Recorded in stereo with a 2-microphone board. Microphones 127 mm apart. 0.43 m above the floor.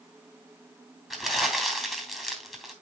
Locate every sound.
1.1 s crumpling: centre (ahead or behind), 3 m